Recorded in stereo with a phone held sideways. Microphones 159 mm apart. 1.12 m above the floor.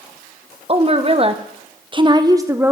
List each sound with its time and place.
0.7 s a woman speaking: 40° right (ahead or behind), 1.1 m; by 2.7 s 15° right (ahead or behind), 0.7 m